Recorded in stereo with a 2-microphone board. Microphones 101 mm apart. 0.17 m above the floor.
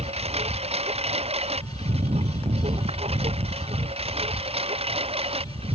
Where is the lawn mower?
85° right; by 5.8 s 75° right (ahead or behind).